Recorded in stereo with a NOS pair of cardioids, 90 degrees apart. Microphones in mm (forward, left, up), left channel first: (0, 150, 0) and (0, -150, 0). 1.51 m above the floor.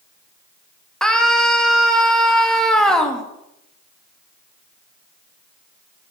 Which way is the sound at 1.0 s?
Straight ahead.